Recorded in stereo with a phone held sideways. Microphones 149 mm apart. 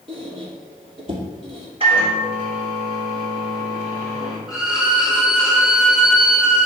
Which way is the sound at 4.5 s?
5° right (ahead or behind).